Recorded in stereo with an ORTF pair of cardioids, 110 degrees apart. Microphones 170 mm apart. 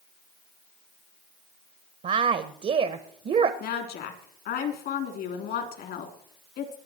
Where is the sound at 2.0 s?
40° right, 1.2 m.